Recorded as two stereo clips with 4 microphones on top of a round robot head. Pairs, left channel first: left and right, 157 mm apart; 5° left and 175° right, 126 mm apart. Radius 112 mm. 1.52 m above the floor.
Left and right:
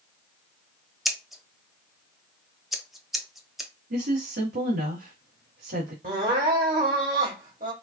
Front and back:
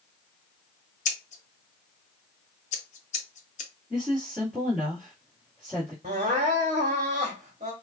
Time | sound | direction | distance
1.1 | scissors | straight ahead | 0.8 m
3.9 | a woman speaking | 80° right | 1.7 m
6.0 | crying | 125° right | 1.4 m